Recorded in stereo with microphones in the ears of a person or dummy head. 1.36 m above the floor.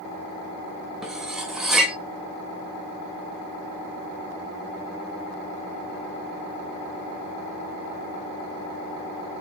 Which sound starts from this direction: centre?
Cutlery clinking, at 1.0 s.